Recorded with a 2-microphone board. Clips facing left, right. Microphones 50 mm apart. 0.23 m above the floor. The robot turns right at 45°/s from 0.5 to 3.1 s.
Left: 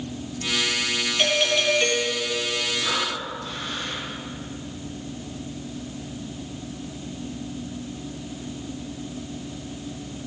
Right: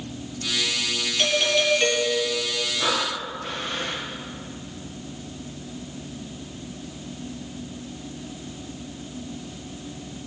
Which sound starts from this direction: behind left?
A doorbell, at 1.2 s.